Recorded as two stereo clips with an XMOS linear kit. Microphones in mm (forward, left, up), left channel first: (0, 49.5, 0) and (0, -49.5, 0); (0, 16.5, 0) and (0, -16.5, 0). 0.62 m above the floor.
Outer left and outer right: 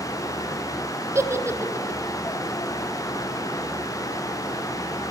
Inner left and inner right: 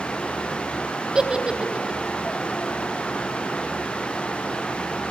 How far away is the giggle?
About 1.5 m.